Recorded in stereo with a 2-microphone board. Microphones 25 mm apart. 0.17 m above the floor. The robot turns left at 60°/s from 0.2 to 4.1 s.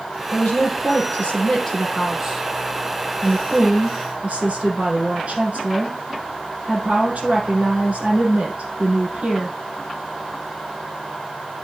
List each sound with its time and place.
0.3 s a woman speaking: 115° left, 5.5 m; by 9.6 s 115° right, 5.5 m